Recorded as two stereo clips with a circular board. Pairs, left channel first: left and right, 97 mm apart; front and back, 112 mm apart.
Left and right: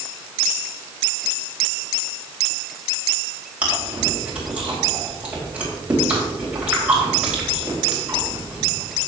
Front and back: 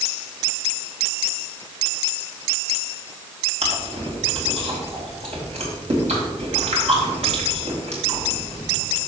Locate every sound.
3.6 s chewing: 165° right, 4 m